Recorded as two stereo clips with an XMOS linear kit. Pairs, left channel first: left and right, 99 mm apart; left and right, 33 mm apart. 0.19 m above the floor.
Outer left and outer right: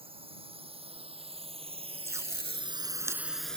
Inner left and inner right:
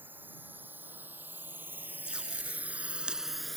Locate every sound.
0.0 s a drone: 70° right (ahead or behind); by 3.6 s 10° left (ahead or behind)
2.0 s tape being pulled: 30° right (ahead or behind)